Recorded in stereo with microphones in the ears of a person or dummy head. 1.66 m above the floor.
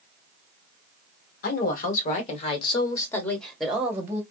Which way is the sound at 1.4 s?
65° left (ahead or behind).